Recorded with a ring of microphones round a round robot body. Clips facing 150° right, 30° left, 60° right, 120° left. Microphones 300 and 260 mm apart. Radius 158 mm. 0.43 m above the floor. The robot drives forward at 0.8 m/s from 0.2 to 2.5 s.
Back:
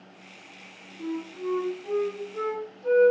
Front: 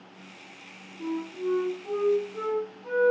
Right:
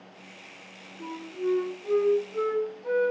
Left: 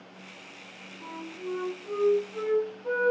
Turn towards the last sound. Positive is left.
turn(degrees=-110)